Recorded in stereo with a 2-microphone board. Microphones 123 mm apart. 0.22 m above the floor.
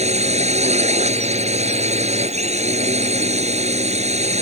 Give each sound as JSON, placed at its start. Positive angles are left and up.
{"t": 0.0, "sound": "a drone", "side_deg": -65}